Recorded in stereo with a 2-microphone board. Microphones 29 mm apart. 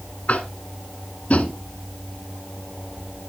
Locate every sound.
0.3 s tapping: 50° left (ahead or behind), 1.2 m